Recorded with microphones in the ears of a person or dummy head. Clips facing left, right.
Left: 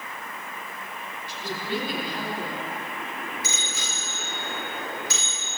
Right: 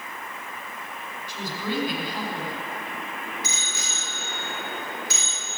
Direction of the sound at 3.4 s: 65° left (ahead or behind).